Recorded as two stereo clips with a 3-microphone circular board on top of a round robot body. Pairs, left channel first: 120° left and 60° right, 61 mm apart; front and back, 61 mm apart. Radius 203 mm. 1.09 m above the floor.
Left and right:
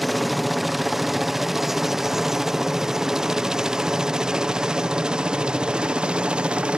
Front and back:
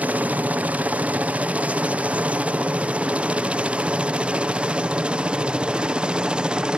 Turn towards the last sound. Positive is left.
turn(degrees=-120)